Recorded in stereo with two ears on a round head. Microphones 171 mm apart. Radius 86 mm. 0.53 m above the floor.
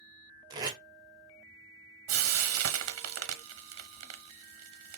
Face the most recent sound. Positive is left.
turn(degrees=-80)